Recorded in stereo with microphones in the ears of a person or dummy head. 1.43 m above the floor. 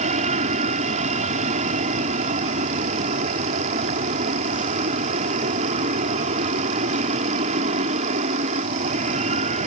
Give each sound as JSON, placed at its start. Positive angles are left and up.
{"t": 0.0, "sound": "an aircraft", "side_deg": -35}